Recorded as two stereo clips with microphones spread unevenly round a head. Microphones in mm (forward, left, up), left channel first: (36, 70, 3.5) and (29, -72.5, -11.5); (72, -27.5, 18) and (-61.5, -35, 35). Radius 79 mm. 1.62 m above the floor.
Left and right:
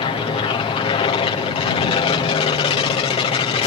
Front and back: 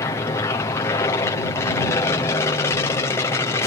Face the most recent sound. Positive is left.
turn(degrees=55)